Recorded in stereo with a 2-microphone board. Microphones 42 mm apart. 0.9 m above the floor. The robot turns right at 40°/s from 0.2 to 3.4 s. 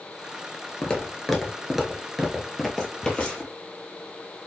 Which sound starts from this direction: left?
Footsteps, at 0.8 s.